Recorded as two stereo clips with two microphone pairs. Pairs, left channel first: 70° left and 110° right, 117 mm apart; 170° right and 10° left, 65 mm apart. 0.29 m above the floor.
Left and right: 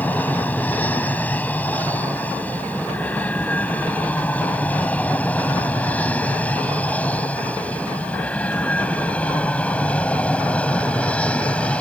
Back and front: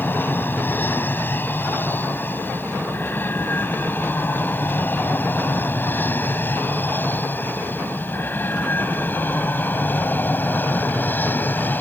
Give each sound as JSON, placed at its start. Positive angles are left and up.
{"t": 0.0, "sound": "an aircraft", "azimuth_deg": 145}